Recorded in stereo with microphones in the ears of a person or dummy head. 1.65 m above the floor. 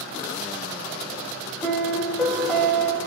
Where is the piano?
5° left (ahead or behind), 0.6 m.